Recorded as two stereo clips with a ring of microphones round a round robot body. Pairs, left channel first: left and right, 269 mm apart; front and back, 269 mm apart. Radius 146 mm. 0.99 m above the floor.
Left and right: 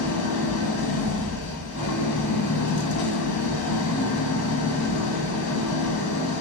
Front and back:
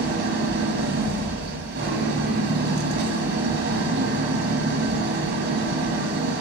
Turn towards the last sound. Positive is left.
turn(degrees=130)